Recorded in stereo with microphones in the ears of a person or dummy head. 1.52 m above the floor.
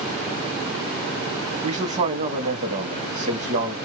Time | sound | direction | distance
1.6 | a man speaking | 40° right (ahead or behind) | 0.9 m